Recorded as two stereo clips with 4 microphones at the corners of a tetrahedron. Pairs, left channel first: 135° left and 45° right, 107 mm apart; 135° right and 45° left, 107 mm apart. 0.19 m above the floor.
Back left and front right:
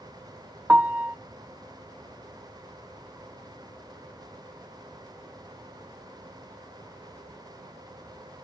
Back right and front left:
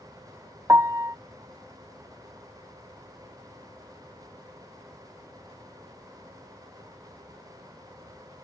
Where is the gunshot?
No gunshot in this recording.